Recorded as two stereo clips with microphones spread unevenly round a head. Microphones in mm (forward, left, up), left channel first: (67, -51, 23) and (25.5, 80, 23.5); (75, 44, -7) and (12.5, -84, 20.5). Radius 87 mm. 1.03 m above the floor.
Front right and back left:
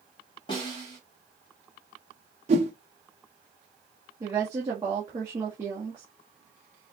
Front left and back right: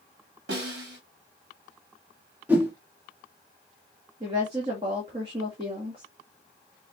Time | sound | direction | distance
0.5 | a snare drum | 135° right | 2.5 m
2.5 | a whoosh | 160° left | 0.8 m
4.2 | a woman speaking | straight behind | 1.6 m